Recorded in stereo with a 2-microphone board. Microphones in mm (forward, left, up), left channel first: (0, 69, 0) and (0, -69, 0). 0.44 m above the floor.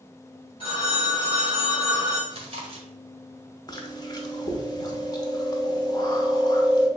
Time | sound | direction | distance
0.6 | a phone ringing | 40° left (ahead or behind) | 1.8 m
2.3 | chewing | 40° right (ahead or behind) | 1.3 m
3.7 | chewing | 30° left (ahead or behind) | 0.7 m